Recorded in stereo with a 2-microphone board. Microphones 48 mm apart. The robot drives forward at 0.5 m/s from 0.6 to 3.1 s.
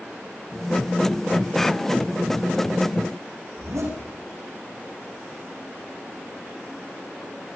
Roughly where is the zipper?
Right.